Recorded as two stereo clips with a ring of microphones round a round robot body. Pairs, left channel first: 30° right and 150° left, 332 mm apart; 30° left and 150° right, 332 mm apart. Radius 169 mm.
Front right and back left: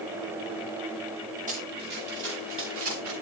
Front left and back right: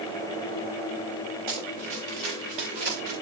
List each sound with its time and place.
1.5 s running footsteps: 140° right, 4.5 m; by 3.1 s 165° right, 5.5 m